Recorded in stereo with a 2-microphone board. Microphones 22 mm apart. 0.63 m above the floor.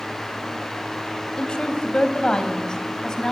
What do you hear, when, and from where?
1.4 s a woman speaking: 45° left (ahead or behind), 3.5 m; by 3.3 s 30° left (ahead or behind), 4.5 m